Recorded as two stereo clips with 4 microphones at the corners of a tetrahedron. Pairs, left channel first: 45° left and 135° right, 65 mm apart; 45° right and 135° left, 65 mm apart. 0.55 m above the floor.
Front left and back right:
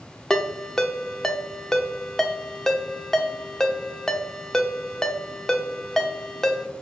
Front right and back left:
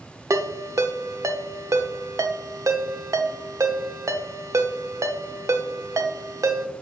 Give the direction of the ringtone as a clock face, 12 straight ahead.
8 o'clock.